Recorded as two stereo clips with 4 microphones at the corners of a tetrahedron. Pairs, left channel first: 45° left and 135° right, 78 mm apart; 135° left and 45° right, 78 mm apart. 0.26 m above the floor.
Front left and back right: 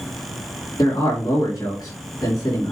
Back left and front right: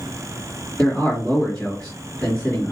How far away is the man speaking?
About 3 m.